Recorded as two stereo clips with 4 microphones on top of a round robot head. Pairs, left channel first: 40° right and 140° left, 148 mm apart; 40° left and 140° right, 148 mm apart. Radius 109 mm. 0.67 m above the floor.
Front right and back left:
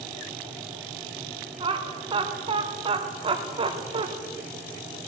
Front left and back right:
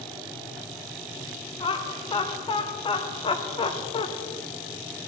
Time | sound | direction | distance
1.6 | laughter | 90° left | 1.4 m